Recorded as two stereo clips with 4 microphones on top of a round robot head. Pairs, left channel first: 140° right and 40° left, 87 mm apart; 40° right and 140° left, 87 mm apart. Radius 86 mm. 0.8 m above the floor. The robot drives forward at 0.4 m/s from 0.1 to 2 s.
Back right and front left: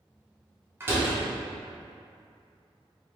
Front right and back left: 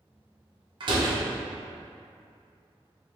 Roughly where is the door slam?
Left.